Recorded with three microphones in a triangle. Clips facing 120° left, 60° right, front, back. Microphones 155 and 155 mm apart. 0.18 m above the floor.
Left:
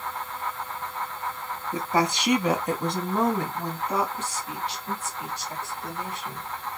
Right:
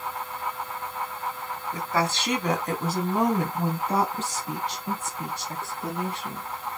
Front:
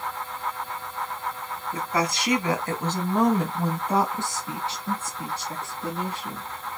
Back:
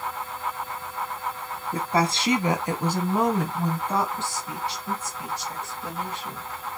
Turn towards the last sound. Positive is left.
turn(degrees=-45)